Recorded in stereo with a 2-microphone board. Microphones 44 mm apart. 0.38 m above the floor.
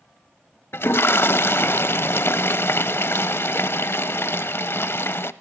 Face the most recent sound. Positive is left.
turn(degrees=65)  # may be behind; listen again after turning